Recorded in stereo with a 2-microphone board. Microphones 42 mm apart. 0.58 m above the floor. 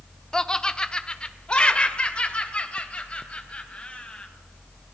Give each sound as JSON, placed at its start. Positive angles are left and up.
{"t": 0.3, "sound": "laughter", "side_deg": 15, "distance_m": 0.8}